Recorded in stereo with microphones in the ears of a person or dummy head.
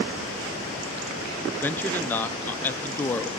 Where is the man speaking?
10° left (ahead or behind), 0.6 m.